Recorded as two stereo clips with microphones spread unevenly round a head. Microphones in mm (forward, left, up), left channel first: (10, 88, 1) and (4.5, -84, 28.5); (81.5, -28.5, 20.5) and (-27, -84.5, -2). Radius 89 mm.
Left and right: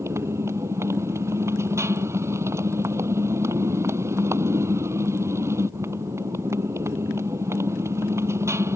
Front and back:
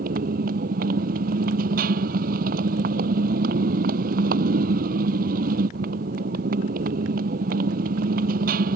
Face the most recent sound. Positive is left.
turn(degrees=-165)